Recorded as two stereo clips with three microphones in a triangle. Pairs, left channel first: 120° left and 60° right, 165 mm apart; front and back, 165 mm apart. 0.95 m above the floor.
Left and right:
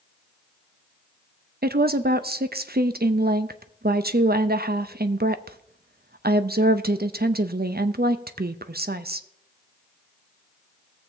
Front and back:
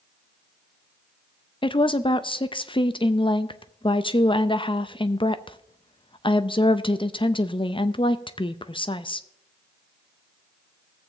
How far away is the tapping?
No tapping in this recording.